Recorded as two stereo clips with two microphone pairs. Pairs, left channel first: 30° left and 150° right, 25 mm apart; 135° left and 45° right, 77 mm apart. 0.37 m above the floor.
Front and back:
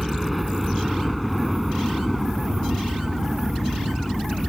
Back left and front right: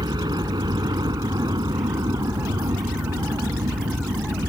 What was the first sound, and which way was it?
A helicopter, 60° right.